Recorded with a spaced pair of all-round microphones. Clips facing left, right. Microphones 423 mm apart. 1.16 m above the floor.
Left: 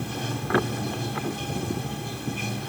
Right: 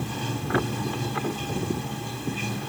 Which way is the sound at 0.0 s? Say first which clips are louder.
Even; 5° right (ahead or behind).